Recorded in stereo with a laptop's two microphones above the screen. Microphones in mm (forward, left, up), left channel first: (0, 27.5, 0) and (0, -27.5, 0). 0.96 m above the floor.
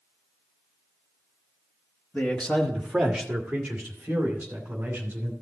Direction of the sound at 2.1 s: 25° left (ahead or behind).